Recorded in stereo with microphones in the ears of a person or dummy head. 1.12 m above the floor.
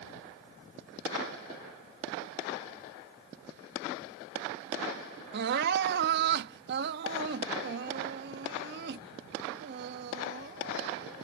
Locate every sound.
5.3 s crying: 55° right (ahead or behind)